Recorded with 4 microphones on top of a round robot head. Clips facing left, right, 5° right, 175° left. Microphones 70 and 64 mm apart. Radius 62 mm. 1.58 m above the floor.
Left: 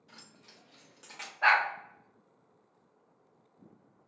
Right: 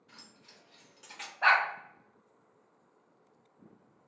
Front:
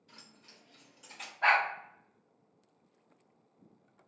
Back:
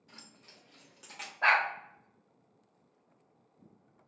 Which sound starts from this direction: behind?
A dog barking, at 1.4 s.